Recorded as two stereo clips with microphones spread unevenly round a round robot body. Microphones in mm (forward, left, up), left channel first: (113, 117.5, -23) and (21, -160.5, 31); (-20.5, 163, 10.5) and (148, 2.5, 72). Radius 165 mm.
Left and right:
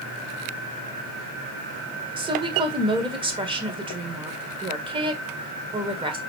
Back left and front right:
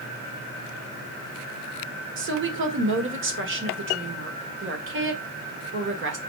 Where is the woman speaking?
30° right, 1.7 m.